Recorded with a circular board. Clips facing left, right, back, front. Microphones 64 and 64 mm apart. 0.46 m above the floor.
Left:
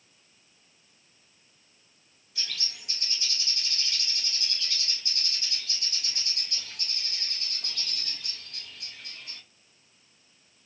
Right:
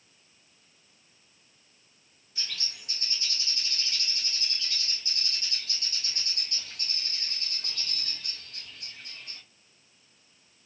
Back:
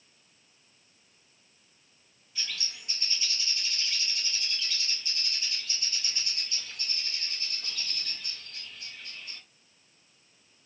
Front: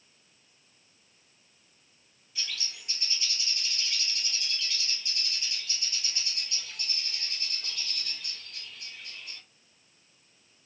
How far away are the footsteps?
I don't hear footsteps.